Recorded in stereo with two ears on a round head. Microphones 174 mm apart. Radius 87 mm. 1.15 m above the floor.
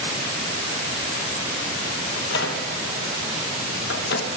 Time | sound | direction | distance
2.1 | a microwave | 60° left (ahead or behind) | 1.0 m